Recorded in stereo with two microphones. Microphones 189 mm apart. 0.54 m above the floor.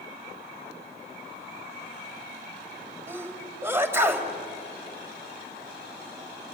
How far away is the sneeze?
About 2.5 m.